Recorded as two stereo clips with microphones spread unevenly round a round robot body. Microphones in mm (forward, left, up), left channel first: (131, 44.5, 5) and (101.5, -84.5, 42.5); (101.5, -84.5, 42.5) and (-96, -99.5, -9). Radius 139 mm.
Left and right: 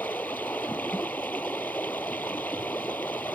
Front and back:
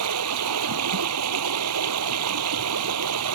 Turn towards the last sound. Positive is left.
turn(degrees=165)